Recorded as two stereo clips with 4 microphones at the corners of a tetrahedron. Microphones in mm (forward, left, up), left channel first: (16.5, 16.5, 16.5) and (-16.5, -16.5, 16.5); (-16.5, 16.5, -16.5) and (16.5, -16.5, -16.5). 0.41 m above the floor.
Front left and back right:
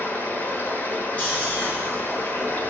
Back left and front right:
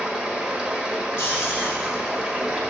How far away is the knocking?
I don't hear knocking.